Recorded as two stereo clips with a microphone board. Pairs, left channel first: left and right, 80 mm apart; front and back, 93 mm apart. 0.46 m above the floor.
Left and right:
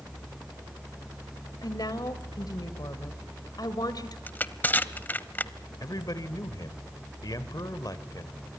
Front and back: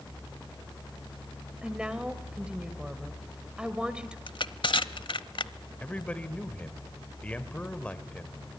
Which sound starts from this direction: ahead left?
Crushing, at 4.3 s.